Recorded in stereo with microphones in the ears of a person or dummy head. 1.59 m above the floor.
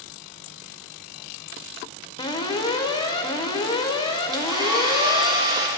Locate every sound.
2.2 s an alarm: 20° left (ahead or behind), 0.8 m
4.3 s a hair dryer: 30° right (ahead or behind), 1.8 m